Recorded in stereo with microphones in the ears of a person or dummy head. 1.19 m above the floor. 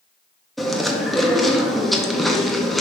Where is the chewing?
5° left (ahead or behind), 0.7 m.